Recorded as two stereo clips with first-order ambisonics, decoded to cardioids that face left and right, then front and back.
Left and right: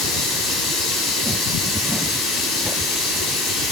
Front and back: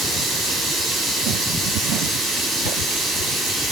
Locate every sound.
0.0 s running water: 140° left, 5.5 m